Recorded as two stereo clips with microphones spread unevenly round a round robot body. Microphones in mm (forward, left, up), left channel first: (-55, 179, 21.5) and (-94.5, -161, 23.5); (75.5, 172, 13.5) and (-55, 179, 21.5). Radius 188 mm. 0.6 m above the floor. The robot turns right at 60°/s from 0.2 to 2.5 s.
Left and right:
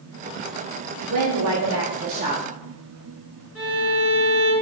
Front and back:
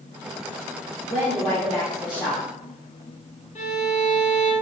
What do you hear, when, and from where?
1.1 s a woman speaking: 105° right, 0.9 m; by 2.5 s 25° right, 0.9 m
3.5 s a violin: 5° right, 2 m